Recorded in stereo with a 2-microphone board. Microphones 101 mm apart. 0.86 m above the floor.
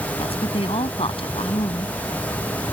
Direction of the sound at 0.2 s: 60° left (ahead or behind).